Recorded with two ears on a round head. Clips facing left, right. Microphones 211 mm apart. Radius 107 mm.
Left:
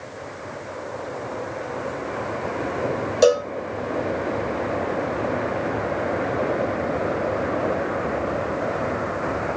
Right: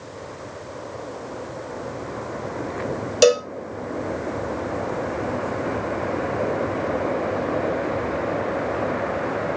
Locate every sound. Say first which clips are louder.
3.2 s a cowbell: right 1 dB; 35° right (ahead or behind), 0.6 m